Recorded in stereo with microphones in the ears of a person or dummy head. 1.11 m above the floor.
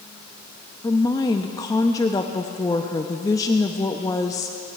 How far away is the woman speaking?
About 0.5 m.